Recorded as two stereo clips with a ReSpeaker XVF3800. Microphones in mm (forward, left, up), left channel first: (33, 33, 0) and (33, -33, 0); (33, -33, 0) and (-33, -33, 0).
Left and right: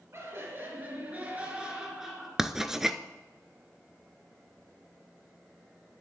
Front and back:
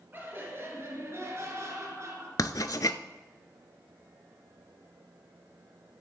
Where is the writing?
5° right, 0.5 m.